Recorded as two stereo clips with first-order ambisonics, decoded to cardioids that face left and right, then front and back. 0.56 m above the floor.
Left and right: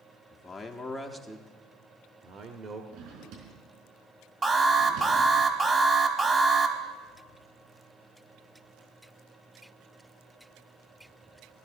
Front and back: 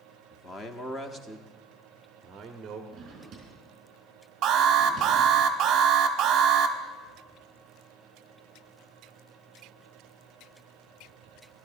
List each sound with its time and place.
0.3 s a man speaking: 30° left, 1.0 m; by 2.8 s 125° right, 1.3 m
2.9 s a drawer: 120° right, 4.5 m
4.4 s an alarm: 155° right, 1.1 m